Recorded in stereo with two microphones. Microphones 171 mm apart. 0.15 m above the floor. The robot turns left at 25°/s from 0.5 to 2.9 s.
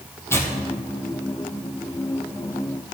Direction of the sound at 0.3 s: 15° left (ahead or behind).